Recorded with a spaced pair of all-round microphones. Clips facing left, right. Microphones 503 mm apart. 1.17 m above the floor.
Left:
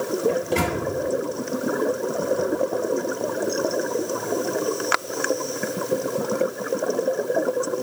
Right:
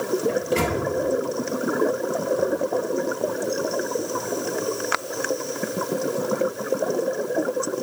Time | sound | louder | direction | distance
0.3 | a microwave | even | 10° left (ahead or behind) | 1.1 m